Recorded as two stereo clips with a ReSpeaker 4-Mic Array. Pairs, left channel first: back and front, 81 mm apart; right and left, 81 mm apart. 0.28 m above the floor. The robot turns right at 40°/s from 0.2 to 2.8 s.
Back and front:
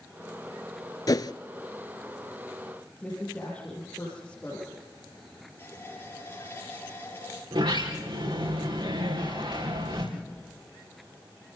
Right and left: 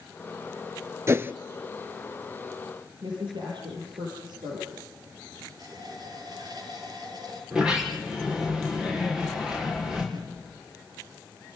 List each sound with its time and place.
1.1 s a whoosh: 145° left, 0.7 m; by 1.3 s 155° left, 0.7 m
3.0 s a woman speaking: 105° left, 6 m
5.6 s a running tap: 120° left, 4.5 m
7.5 s a sliding door: 10° left, 5 m